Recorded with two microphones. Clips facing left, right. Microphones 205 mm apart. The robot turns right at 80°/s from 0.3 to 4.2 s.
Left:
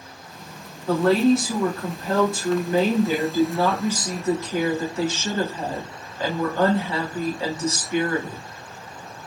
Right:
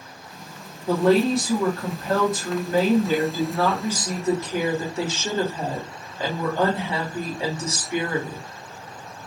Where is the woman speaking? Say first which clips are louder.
Left 1 dB; 15° right (ahead or behind), 1.3 m; by 8.4 s 20° right (ahead or behind), 1.3 m.